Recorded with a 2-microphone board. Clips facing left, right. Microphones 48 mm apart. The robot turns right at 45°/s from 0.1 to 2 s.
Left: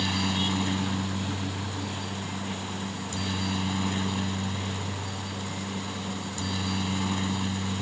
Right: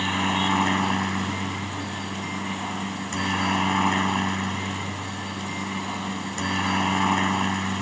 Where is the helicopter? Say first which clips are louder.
Right 5 dB; 145° right; by 7.8 s 60° right.